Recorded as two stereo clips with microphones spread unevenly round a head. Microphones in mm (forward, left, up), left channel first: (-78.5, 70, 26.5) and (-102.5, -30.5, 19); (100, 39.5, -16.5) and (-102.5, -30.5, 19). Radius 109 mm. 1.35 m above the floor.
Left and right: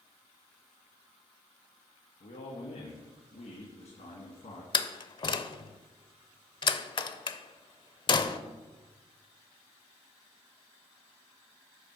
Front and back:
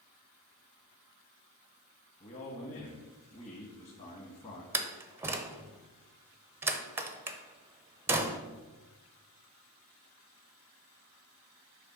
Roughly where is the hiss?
I don't hear a hiss.